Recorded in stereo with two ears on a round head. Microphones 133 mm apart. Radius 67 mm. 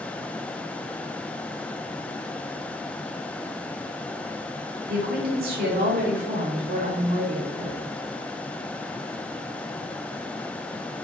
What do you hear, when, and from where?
4.9 s a woman speaking: 65° right (ahead or behind), 2.5 m; by 7.8 s 45° right (ahead or behind), 5 m